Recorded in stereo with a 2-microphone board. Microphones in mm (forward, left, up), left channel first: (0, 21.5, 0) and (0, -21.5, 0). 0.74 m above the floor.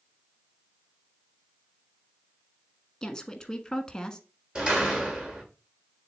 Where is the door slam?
20° right (ahead or behind), 1.6 m.